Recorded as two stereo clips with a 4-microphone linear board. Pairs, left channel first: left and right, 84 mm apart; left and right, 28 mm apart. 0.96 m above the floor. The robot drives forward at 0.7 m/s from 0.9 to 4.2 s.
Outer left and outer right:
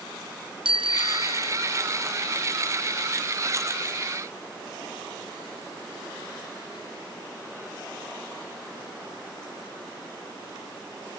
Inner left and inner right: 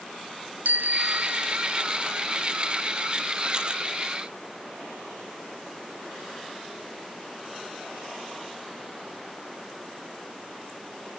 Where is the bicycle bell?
85° right; by 1.8 s 90° right.